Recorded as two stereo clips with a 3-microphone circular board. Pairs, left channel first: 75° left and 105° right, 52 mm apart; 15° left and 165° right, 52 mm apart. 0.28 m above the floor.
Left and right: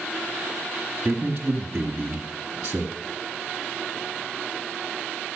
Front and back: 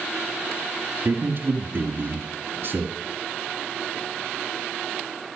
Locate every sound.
1.1 s a man speaking: 170° right, 1.6 m